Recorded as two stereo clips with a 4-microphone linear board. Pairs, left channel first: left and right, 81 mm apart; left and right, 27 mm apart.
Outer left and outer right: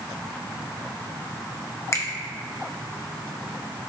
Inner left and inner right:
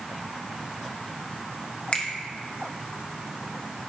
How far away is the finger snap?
About 0.9 m.